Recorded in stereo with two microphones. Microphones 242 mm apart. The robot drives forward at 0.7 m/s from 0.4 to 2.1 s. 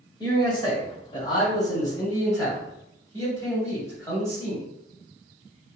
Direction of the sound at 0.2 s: 20° left (ahead or behind).